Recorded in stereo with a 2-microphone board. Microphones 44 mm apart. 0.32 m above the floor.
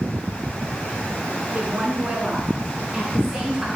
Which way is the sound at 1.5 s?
30° right (ahead or behind).